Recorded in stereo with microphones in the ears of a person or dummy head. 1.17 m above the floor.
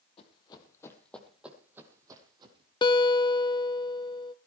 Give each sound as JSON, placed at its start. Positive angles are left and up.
{"t": 0.2, "sound": "running footsteps", "side_deg": 30, "distance_m": 2.0}
{"t": 2.8, "sound": "a guitar", "side_deg": 25, "distance_m": 0.6}